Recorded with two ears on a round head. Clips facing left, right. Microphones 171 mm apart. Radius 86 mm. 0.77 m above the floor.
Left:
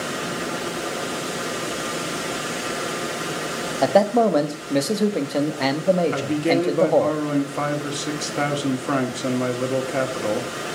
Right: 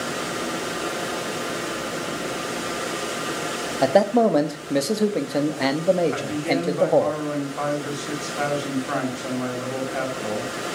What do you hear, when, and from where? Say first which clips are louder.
3.8 s a man speaking: even; centre (ahead or behind), 1.0 m
6.1 s a man speaking: left 4 dB; 45° left (ahead or behind), 1.9 m